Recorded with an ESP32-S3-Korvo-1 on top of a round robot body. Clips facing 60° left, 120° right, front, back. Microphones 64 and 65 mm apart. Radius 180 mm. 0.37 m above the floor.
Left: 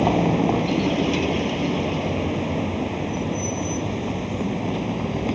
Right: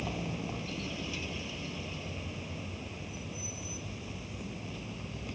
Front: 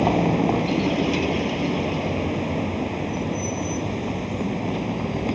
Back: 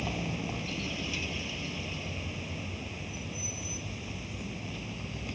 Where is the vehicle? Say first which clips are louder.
Left 18 dB, front 16 dB; 35° left.